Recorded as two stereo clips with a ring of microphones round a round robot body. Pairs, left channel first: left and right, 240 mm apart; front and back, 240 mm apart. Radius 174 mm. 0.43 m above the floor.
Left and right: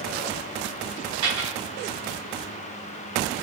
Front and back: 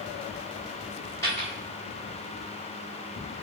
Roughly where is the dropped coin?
Right.